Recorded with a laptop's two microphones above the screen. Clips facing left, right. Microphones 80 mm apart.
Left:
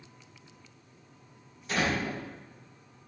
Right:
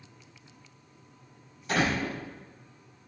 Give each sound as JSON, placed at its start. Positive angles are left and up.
{"t": 1.7, "sound": "a door slam", "side_deg": -55, "distance_m": 4.0}